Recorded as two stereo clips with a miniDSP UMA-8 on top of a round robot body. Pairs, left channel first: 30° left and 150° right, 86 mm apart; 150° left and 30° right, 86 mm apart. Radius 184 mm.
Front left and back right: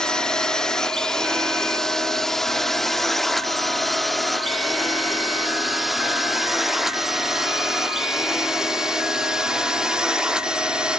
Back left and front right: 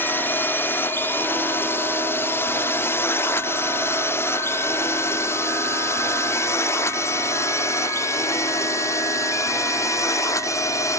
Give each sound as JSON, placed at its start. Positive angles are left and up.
{"t": 0.0, "sound": "a drone", "azimuth_deg": 105}